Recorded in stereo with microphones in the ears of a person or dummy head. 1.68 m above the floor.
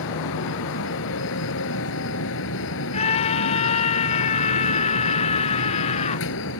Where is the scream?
35° left (ahead or behind).